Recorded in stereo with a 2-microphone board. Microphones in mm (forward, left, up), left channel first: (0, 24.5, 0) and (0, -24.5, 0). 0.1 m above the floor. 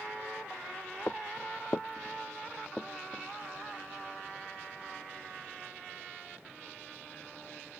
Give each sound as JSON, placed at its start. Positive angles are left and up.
{"t": 1.1, "sound": "footsteps", "side_deg": 45}